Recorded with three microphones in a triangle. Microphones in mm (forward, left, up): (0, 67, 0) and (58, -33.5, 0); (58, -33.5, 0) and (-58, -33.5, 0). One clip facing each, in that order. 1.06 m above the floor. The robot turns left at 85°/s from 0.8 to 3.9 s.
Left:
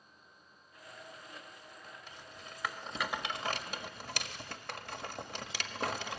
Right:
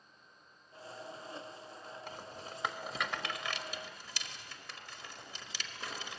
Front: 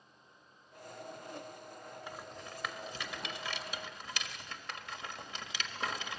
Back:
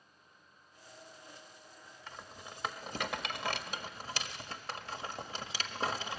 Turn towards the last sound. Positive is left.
turn(degrees=130)